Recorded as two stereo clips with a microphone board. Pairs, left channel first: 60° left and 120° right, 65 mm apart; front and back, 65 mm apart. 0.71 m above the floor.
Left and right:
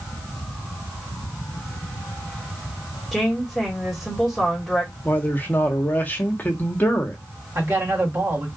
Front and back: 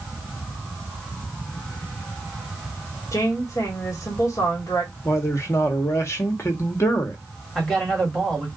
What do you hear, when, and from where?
3.1 s a woman speaking: 30° right, 1.6 m
5.0 s a man speaking: 10° left, 1.1 m
7.5 s a man speaking: 80° right, 1.9 m